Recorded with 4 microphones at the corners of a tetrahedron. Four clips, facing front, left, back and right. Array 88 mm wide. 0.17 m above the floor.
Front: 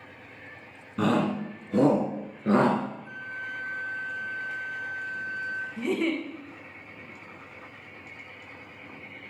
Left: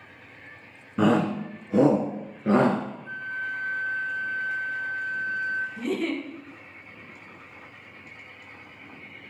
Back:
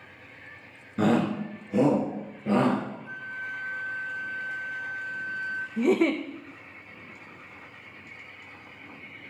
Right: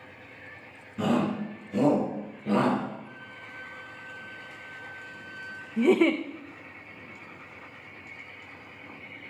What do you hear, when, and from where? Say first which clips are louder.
1.0 s a shout: left 4 dB, back 1 dB; 85° left, 1.8 m; by 2.8 s 50° left, 2 m
3.0 s a flute: left 12 dB, back 1 dB; 155° right, 1.4 m
5.8 s a giggle: right 7 dB, back 6 dB; 125° right, 1.8 m